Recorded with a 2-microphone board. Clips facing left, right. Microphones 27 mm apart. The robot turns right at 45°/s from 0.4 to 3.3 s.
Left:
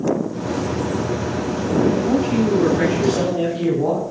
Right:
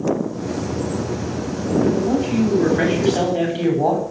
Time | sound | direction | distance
1.9 | a man speaking | straight behind | 7.5 m